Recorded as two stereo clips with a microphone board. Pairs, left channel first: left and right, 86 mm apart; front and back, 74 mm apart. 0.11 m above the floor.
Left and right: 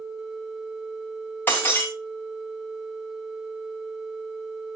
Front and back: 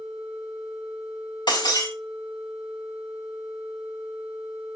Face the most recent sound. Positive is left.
turn(degrees=20)